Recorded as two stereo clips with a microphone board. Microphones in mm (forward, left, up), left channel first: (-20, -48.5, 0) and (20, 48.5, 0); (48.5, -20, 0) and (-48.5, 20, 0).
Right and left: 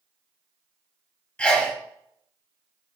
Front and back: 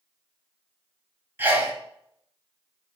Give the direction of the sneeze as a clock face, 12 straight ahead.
6 o'clock.